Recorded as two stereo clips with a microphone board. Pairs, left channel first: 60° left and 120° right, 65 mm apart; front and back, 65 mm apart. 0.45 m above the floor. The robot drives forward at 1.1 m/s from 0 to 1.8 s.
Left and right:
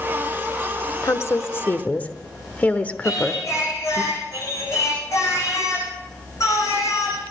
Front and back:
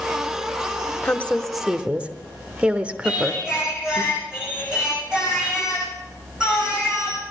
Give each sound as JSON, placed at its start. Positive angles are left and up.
{"t": 1.0, "sound": "a woman speaking", "azimuth_deg": 45, "distance_m": 1.1}
{"t": 3.0, "sound": "singing", "azimuth_deg": 100, "distance_m": 7.5}